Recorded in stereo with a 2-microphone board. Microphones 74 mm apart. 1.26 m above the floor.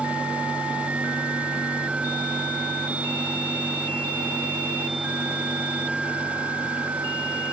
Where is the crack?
I don't hear a crack.